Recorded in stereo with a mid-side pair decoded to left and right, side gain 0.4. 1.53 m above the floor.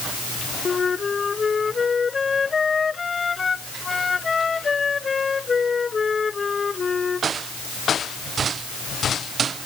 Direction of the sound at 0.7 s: 35° left.